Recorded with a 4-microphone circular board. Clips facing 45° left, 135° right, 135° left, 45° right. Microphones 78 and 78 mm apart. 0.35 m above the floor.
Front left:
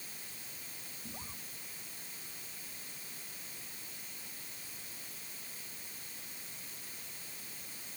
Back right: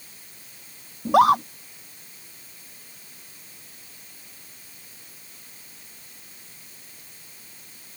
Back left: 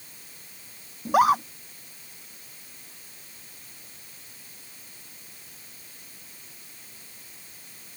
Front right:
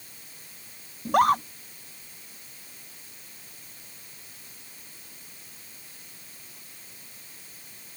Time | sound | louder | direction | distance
1.1 | a scream | back right 36 dB, back left 1 dB | 140° right | ?